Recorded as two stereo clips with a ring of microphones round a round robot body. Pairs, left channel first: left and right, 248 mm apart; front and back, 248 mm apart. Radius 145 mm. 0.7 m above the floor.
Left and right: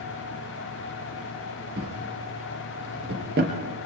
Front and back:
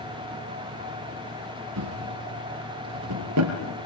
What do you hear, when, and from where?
1.8 s a drawer: 145° right, 3.5 m